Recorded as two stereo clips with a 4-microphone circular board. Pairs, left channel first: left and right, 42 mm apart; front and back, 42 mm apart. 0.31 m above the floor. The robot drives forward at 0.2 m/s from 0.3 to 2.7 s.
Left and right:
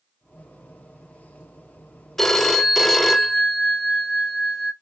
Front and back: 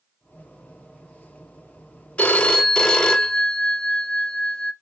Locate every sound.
2.2 s a phone ringing: 10° left, 0.5 m; by 4.7 s 15° left, 0.5 m